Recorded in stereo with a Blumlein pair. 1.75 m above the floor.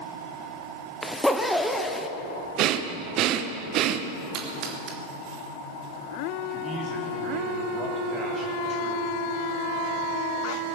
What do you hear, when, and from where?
1.0 s a zipper: 5° left, 1.0 m
2.6 s breathing: 35° right, 1.0 m
4.3 s a splash: 40° right, 2.5 m
6.5 s a man speaking: 20° right, 4 m